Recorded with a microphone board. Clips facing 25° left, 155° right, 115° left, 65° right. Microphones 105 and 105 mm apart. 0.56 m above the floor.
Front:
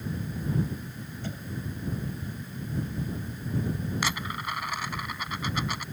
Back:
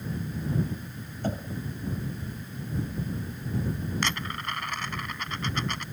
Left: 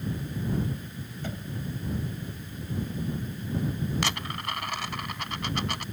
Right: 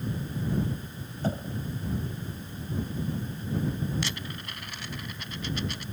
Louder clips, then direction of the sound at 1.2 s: Back 7 dB, right 7 dB; 120° right.